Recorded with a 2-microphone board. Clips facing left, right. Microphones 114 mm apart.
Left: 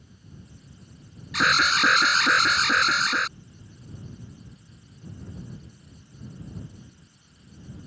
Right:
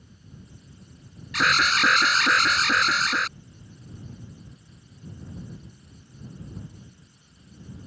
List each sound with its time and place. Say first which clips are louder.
1.3 s an alarm: even; 5° left (ahead or behind)